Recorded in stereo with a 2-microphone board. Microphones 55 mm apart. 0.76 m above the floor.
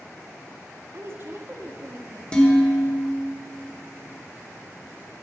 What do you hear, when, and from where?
0.9 s a woman speaking: 50° right (ahead or behind), 1.0 m
2.3 s dishes clattering: 20° left (ahead or behind), 1.5 m